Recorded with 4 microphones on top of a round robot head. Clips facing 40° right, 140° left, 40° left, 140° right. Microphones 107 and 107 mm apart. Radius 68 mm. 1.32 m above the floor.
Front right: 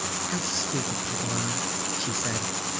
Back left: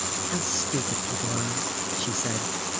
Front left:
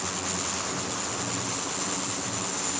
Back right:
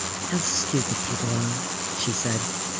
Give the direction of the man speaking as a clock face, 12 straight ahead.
5 o'clock.